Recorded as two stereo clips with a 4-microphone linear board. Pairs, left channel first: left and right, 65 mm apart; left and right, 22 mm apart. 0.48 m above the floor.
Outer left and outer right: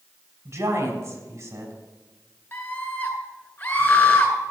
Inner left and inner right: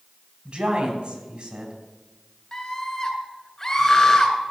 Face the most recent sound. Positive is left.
turn(degrees=30)  # may be behind; listen again after turning